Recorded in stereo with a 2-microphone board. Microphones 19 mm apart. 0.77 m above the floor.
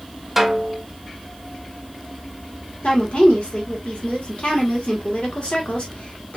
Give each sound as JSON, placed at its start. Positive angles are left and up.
{"t": 0.4, "sound": "a snare drum", "side_deg": -5, "distance_m": 1.5}
{"t": 2.8, "sound": "a woman speaking", "side_deg": 65, "distance_m": 1.7}